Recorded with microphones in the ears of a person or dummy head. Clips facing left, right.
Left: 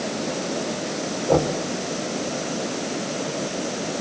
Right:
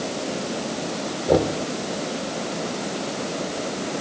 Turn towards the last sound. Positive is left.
turn(degrees=-20)  # may be behind; listen again after turning